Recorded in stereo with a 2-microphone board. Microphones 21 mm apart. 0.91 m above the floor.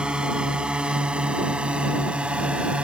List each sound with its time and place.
0.0 s a drone: 50° right (ahead or behind); by 2.9 s 65° right (ahead or behind)